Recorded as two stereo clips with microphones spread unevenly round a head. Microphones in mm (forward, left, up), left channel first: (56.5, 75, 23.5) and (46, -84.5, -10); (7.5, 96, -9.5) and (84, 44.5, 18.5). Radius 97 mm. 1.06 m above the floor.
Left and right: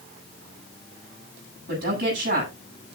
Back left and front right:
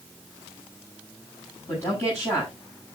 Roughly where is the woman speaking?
Behind right.